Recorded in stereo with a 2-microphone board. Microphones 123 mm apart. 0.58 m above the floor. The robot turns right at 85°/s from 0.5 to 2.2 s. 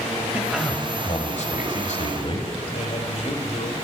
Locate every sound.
0.3 s a man speaking: 10° right, 2.5 m; by 2.5 s 135° left, 2.5 m
2.7 s a man speaking: 60° left (ahead or behind), 3 m